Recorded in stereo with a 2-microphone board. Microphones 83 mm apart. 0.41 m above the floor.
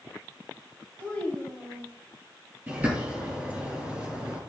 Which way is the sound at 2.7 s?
20° right (ahead or behind).